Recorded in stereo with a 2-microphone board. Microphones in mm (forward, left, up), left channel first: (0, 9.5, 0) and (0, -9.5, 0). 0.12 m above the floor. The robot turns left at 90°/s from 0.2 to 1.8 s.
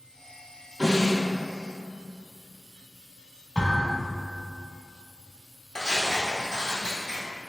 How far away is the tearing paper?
About 1.5 m.